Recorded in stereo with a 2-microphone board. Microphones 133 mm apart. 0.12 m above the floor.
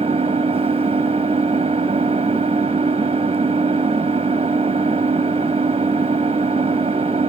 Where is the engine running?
45° right (ahead or behind), 0.7 m.